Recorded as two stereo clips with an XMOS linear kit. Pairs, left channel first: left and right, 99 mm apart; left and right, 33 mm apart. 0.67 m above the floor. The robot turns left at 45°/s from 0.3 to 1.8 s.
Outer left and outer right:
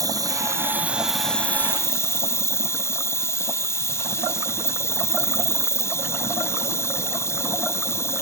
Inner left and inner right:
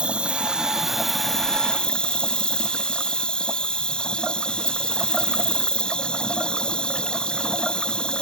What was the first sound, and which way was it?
An insect, 140° right.